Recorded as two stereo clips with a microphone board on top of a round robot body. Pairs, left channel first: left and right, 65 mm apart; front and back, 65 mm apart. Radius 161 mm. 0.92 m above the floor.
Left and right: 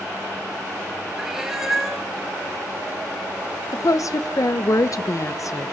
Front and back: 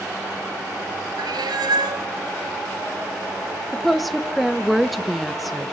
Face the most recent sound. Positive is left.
turn(degrees=90)